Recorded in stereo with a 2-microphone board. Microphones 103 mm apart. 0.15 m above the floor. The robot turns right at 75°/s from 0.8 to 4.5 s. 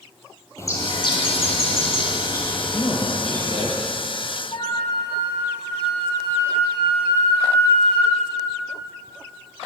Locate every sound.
0.6 s a bird: 30° left, 4 m; by 3.7 s 110° right, 4 m
2.7 s a man speaking: 135° left, 4.5 m; by 3.8 s 145° right, 4.5 m
4.5 s a flute: 45° left (ahead or behind), 4 m